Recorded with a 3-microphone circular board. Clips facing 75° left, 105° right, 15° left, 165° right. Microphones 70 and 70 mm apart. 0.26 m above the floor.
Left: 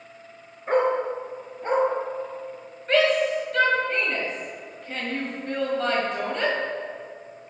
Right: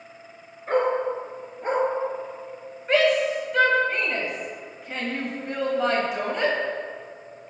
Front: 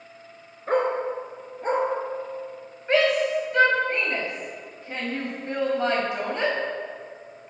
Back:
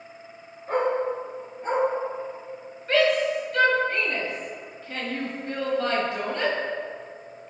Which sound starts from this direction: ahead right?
A shout, at 2.9 s.